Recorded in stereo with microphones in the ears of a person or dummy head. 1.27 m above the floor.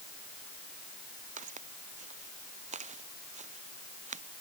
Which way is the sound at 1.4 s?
45° right (ahead or behind).